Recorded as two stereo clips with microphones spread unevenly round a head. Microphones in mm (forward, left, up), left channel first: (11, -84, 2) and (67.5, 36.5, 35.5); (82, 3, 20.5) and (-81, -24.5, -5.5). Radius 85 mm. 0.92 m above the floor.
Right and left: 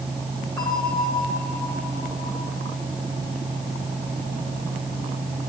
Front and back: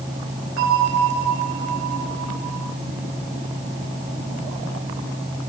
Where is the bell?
175° left, 4 m.